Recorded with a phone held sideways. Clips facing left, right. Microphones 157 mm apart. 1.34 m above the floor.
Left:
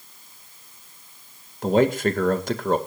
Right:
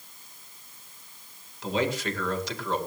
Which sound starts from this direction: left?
A man speaking, at 1.6 s.